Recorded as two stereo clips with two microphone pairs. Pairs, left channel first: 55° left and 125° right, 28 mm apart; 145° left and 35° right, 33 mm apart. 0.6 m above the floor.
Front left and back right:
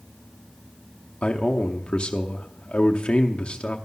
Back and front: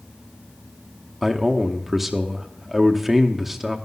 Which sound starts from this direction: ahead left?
A man speaking, at 1.2 s.